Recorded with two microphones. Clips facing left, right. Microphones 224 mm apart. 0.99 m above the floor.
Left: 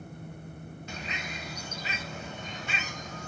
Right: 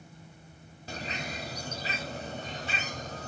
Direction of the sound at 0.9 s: 35° right (ahead or behind).